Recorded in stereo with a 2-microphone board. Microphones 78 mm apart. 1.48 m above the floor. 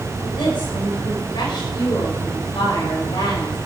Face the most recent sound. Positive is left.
turn(degrees=90)